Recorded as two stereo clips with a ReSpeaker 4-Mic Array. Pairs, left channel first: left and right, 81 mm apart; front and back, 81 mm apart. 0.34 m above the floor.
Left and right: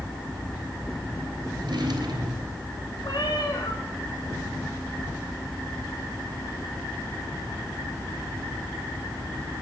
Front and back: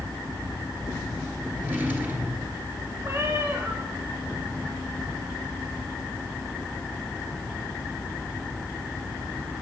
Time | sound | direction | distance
1.6 | a drawer | 115° right | 3 m
3.0 | a cat meowing | 120° left | 3 m